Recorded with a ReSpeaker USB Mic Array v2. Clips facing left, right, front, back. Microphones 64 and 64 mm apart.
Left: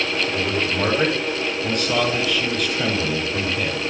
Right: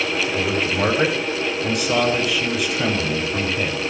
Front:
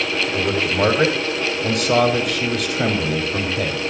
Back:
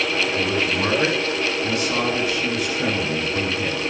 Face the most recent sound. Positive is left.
turn(degrees=-5)